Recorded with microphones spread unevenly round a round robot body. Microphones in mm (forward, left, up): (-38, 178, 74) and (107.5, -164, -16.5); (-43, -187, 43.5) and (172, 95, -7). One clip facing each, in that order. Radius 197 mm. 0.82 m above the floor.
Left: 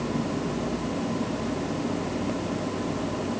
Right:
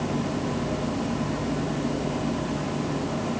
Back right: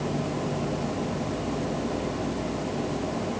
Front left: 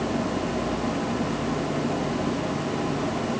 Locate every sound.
Only background noise.